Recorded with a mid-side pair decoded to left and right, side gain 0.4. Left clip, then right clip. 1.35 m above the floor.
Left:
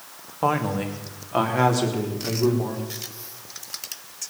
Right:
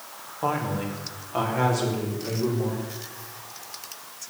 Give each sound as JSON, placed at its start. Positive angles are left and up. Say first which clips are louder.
{"t": 0.4, "sound": "a woman speaking", "louder": "left 4 dB", "azimuth_deg": 50, "distance_m": 2.5}